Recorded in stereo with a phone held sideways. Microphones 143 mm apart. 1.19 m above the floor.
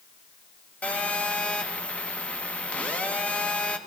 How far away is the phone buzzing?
About 1.1 m.